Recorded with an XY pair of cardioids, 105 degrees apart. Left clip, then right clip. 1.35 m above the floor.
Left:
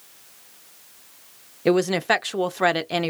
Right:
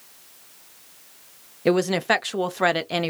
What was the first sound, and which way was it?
A woman speaking, straight ahead.